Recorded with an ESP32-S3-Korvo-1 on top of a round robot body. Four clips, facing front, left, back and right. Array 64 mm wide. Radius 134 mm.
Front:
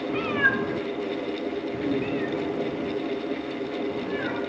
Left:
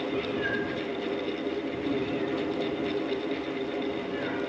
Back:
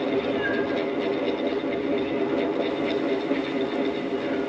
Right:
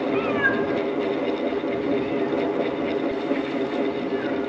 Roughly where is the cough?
I don't hear a cough.